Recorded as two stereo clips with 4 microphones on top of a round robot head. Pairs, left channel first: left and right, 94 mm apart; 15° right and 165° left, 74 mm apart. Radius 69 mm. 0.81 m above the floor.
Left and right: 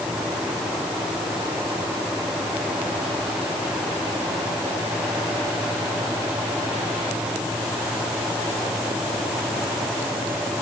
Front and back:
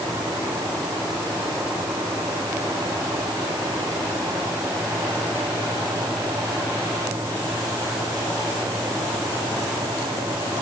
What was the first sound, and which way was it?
Only background noise.